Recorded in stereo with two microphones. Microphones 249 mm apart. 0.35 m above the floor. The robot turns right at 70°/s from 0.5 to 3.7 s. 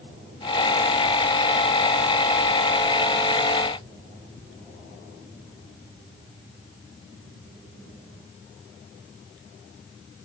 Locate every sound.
Only background noise.